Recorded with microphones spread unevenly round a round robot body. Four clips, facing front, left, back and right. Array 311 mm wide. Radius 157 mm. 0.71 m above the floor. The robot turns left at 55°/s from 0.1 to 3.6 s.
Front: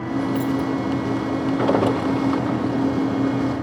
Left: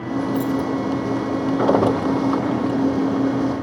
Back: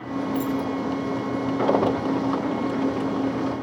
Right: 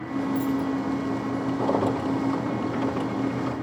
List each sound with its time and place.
0.3 s keys jangling: 95° left, 2.5 m; by 0.7 s 75° left, 2.5 m